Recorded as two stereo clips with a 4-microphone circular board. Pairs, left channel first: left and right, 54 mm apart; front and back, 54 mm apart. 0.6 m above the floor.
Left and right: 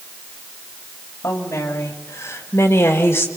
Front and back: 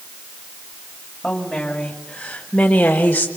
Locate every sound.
1.2 s a woman speaking: 80° left, 3.5 m; by 3.3 s 60° left, 2 m